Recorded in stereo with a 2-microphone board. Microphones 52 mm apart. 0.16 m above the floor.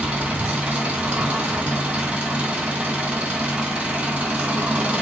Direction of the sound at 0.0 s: 20° right (ahead or behind).